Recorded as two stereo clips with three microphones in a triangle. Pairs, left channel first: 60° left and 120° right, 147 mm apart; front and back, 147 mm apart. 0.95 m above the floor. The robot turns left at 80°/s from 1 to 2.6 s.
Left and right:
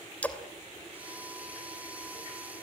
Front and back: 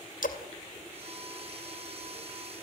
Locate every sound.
0.2 s a splash: 20° right, 2.5 m